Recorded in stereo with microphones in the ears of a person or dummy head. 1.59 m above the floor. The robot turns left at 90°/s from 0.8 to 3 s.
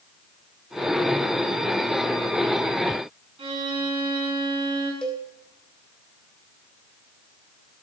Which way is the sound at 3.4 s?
35° right (ahead or behind).